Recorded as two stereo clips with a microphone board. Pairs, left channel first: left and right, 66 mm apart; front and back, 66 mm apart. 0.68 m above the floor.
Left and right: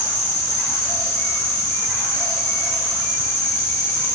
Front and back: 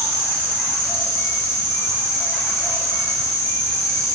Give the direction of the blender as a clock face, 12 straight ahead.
I don't hear a blender.